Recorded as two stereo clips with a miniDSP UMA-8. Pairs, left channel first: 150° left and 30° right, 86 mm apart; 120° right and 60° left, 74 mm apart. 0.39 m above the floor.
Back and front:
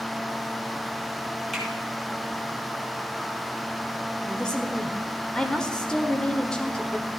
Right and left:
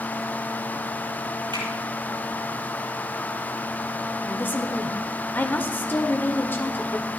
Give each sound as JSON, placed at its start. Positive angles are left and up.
{"t": 1.5, "sound": "a finger snap", "azimuth_deg": 60, "distance_m": 7.0}
{"t": 4.2, "sound": "a woman speaking", "azimuth_deg": -140, "distance_m": 1.4}